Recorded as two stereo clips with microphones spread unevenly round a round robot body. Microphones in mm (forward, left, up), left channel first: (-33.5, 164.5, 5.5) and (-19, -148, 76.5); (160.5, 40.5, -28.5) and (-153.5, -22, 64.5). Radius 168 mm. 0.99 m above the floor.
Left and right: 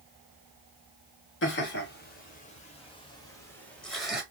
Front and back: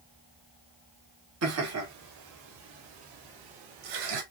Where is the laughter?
140° left, 2.5 m; by 4.2 s straight behind, 2.5 m.